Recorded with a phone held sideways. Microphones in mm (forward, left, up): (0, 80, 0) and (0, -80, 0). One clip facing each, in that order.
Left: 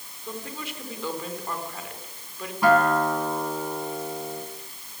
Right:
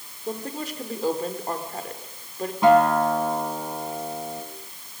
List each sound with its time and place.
0.3 s a woman speaking: 40° right (ahead or behind), 4 m
2.6 s a guitar: 20° right (ahead or behind), 3.5 m